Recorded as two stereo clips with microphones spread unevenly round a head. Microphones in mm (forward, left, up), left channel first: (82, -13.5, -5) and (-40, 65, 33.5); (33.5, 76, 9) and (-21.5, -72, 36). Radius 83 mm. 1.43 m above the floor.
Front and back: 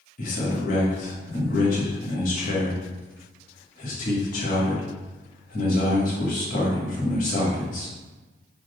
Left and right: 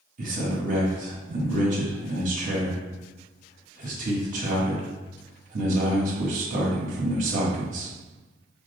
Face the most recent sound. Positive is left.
turn(degrees=-65)